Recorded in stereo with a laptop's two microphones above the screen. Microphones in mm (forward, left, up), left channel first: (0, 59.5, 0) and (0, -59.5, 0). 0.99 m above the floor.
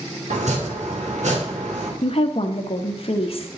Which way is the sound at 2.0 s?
55° left (ahead or behind).